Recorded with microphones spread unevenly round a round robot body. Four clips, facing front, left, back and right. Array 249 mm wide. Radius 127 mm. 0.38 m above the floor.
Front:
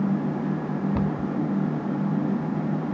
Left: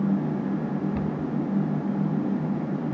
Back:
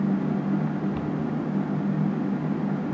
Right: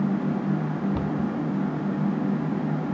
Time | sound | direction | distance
0.9 | a cupboard door | 20° right | 1.3 m